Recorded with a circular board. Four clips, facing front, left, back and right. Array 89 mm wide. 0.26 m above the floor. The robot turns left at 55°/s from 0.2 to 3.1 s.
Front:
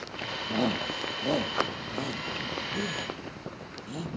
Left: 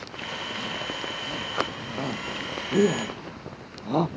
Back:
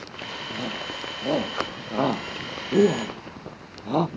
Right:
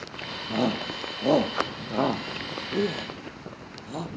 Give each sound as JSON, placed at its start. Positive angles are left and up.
{"t": 0.5, "sound": "a shout", "azimuth_deg": -65}